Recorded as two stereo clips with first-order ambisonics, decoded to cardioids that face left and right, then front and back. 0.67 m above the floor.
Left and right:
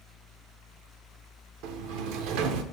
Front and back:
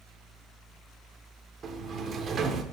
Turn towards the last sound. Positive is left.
turn(degrees=-115)